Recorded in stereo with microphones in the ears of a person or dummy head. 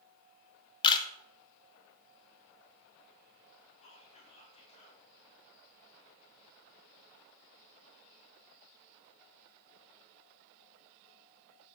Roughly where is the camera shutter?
Left.